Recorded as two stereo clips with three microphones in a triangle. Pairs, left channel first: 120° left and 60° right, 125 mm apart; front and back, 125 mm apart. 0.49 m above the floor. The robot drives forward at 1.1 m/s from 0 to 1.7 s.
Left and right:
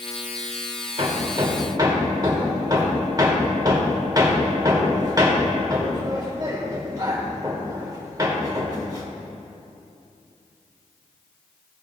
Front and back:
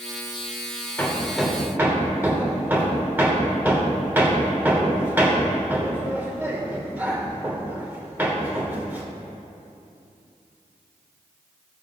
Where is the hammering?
70° right, 1.5 m; by 9.1 s 110° right, 1.5 m.